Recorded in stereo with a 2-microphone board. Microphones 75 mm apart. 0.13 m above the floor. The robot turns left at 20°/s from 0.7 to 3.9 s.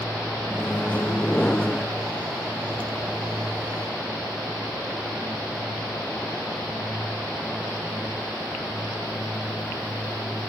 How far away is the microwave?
About 0.9 m.